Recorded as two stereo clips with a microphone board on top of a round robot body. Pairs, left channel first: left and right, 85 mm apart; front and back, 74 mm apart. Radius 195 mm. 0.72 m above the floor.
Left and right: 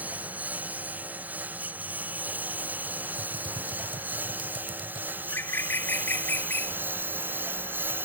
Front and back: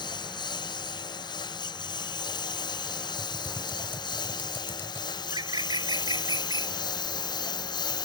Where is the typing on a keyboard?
65° right.